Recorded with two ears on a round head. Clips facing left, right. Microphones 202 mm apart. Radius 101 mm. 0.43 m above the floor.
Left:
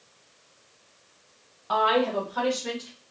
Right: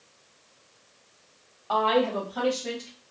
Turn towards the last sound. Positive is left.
turn(degrees=0)  # may be behind; listen again after turning